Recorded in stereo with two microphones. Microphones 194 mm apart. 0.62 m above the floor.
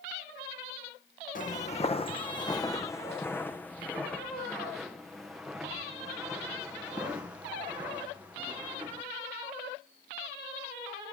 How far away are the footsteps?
About 1.2 m.